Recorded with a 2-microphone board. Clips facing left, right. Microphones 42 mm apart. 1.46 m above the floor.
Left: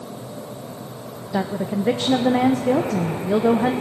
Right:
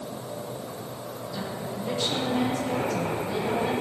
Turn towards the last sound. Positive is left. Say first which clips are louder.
# left 12 dB
turn(degrees=65)  # may be behind; listen again after turning